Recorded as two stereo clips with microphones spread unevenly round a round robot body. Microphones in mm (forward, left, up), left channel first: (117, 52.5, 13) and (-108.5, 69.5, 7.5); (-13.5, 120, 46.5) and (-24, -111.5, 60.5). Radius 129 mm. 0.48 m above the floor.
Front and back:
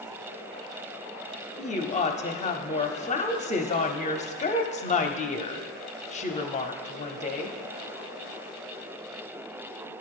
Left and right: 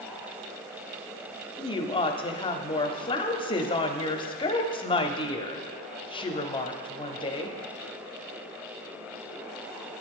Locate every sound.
1.6 s a woman speaking: 35° left, 0.9 m